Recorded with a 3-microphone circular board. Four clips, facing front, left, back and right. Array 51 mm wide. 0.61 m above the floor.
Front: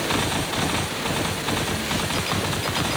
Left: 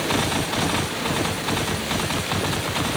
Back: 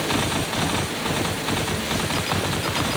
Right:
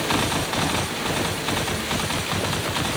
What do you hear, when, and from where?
Only background noise.